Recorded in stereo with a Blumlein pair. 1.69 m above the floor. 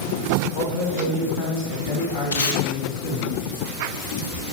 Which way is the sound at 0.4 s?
55° left.